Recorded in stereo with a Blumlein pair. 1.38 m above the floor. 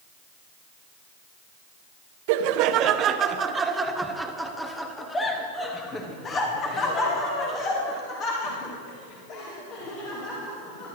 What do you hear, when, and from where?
2.3 s laughter: 50° right, 1.2 m; by 11.0 s 40° left, 4.5 m